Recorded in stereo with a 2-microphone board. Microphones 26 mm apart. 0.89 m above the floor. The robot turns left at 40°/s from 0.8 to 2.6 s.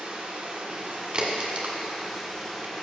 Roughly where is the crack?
Right.